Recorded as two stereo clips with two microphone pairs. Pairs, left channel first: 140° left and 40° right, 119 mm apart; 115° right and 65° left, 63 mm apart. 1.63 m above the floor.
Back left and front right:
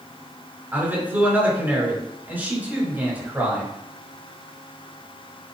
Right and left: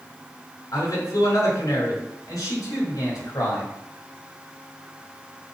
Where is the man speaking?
115° right, 4.5 m.